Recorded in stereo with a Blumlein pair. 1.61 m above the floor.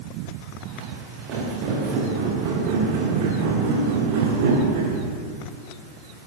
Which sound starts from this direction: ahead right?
Footsteps, at 0.7 s.